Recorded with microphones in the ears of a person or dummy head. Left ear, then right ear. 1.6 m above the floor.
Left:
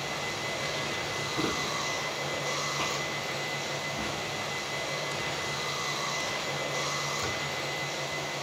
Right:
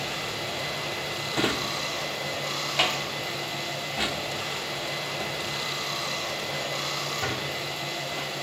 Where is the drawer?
35° right (ahead or behind), 1.3 m.